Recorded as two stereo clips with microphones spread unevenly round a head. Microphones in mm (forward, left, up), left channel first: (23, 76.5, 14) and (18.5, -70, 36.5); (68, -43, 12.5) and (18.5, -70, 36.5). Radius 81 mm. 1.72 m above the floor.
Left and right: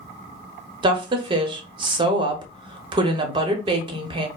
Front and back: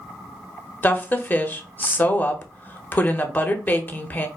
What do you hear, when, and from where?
0.8 s a woman speaking: 35° right, 0.9 m